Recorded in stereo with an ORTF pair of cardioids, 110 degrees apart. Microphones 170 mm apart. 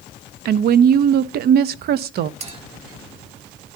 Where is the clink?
40° right, 1.3 m.